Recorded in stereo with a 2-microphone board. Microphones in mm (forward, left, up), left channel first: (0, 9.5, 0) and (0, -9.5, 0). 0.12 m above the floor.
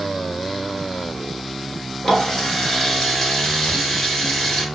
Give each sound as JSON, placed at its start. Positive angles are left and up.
{"t": 2.0, "sound": "a running tap", "side_deg": 35, "distance_m": 1.1}